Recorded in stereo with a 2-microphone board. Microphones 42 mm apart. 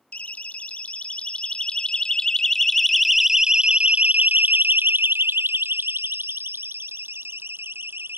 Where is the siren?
35° left (ahead or behind); by 8.2 s 70° right (ahead or behind).